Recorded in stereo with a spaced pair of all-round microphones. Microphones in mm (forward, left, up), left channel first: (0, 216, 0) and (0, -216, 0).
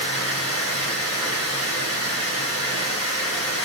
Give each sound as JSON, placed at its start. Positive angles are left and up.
{"t": 0.0, "sound": "running water", "side_deg": -35, "distance_m": 1.3}